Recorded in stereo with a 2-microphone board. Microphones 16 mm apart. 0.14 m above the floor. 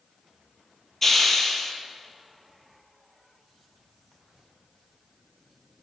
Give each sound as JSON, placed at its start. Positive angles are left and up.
{"t": 1.0, "sound": "a hiss", "side_deg": 15, "distance_m": 1.7}